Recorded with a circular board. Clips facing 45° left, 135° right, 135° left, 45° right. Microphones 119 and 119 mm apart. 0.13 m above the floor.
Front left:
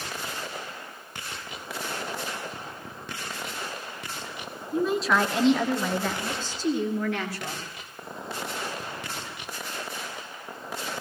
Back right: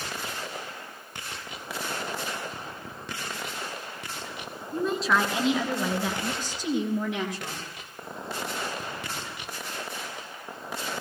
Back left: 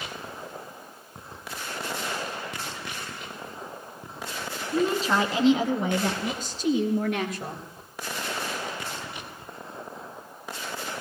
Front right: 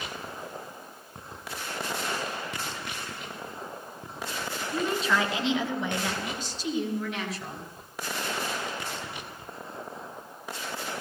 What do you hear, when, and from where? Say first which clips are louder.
4.7 s a woman speaking: front left 2 dB, back left 4 dB; 125° left, 1.8 m; by 7.6 s 160° left, 3 m